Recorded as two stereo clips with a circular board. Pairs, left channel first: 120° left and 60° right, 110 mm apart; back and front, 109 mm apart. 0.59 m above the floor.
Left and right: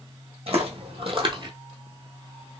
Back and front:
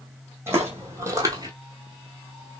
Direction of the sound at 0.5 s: 65° right.